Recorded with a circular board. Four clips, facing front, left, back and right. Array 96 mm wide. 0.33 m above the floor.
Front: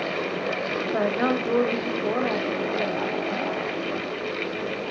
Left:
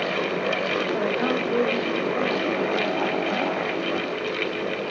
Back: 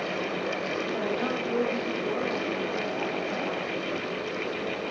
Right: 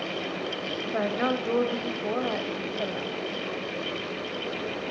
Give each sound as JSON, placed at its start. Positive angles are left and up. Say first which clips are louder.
{"t": 0.8, "sound": "a woman speaking", "louder": "right 1 dB, front 8 dB", "azimuth_deg": -15, "distance_m": 1.4}